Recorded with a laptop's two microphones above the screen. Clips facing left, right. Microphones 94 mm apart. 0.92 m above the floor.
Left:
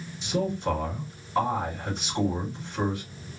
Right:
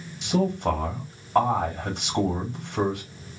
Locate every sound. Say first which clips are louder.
0.2 s a man speaking: right 4 dB; 75° right (ahead or behind), 1.5 m